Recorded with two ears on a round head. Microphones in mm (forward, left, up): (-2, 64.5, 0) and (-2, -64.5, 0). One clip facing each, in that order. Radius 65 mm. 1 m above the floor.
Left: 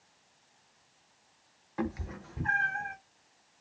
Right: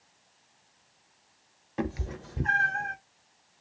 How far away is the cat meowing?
About 0.6 m.